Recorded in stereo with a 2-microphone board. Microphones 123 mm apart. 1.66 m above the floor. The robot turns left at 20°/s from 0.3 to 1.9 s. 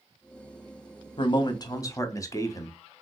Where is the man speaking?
40° left (ahead or behind), 0.6 m; by 2.8 s 25° left (ahead or behind), 0.6 m.